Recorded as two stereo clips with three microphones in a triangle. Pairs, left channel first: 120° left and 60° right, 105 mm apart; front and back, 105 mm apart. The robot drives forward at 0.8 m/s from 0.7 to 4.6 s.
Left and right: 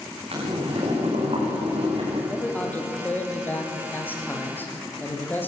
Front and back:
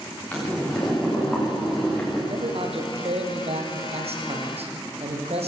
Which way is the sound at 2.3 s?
165° right.